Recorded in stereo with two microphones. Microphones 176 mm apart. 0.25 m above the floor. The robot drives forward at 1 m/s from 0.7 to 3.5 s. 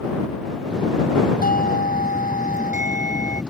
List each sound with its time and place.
1.4 s a doorbell: 50° left (ahead or behind); by 3.4 s 45° left (ahead or behind)